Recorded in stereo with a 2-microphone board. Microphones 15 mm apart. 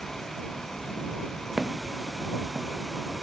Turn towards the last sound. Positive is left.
turn(degrees=-75)  # may be behind; listen again after turning